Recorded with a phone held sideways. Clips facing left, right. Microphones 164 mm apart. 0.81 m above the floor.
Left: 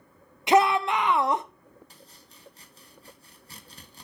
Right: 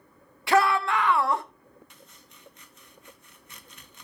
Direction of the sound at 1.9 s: 35° left (ahead or behind).